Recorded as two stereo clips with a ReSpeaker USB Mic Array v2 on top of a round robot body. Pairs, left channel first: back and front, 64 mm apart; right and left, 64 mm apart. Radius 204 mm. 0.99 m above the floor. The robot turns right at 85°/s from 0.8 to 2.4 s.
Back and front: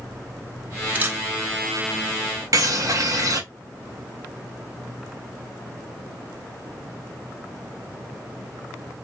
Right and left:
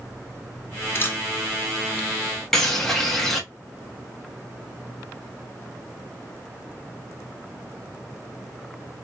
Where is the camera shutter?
55° right, 1.0 m; by 1.2 s 35° right, 1.0 m.